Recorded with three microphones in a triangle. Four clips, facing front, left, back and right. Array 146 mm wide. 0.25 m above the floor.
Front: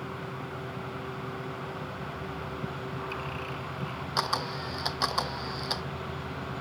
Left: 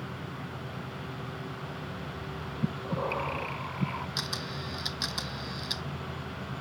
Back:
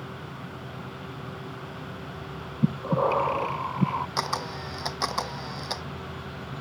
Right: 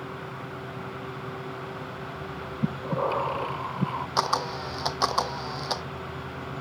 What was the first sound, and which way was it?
Breathing, 155° right.